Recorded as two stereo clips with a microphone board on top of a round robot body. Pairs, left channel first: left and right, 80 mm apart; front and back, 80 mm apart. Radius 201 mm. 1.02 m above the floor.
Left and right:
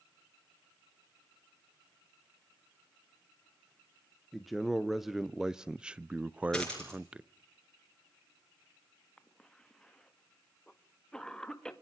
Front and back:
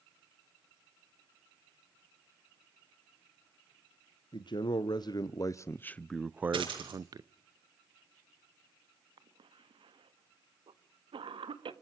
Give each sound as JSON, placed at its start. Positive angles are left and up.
{"t": 4.3, "sound": "a man speaking", "azimuth_deg": 0, "distance_m": 1.4}
{"t": 6.5, "sound": "a dropped coin", "azimuth_deg": 170, "distance_m": 6.5}
{"t": 9.2, "sound": "a cough", "azimuth_deg": 170, "distance_m": 1.8}